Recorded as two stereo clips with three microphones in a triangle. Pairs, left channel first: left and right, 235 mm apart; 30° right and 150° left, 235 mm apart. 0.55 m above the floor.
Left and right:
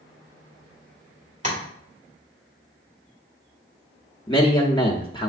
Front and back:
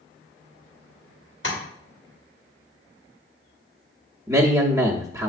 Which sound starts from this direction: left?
A man speaking, at 4.3 s.